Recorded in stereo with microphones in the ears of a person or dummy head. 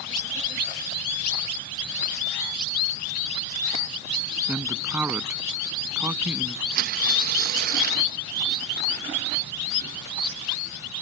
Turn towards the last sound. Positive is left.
turn(degrees=-55)  # may be behind; listen again after turning